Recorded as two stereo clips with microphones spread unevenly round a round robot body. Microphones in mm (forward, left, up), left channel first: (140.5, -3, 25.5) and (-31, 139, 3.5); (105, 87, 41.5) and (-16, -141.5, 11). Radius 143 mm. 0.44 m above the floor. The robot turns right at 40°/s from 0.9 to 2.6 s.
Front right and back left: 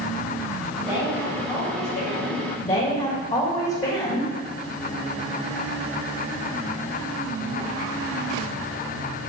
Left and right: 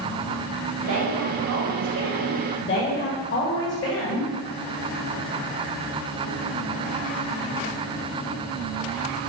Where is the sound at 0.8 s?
145° right, 2.5 m; by 2.4 s 80° right, 2.5 m.